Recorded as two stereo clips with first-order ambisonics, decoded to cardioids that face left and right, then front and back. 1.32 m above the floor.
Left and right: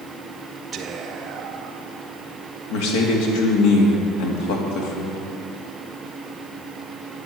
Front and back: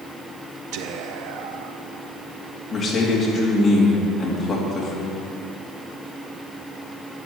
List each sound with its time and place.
0.7 s whispering: 155° right, 0.6 m
2.7 s a man speaking: 80° left, 2.5 m